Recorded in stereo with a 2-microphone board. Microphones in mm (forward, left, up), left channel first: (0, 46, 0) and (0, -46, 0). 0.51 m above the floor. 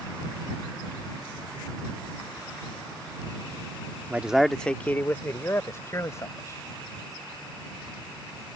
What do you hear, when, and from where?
4.1 s a man speaking: 20° right (ahead or behind); by 6.6 s 35° left (ahead or behind)